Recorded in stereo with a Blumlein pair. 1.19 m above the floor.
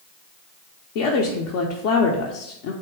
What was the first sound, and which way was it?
A woman speaking, 50° left.